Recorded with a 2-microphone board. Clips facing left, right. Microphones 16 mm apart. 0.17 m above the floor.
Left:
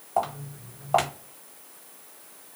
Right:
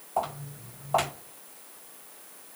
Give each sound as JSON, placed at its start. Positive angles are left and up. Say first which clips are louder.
{"t": 0.2, "sound": "footsteps", "louder": "left 3 dB", "side_deg": 25, "distance_m": 1.3}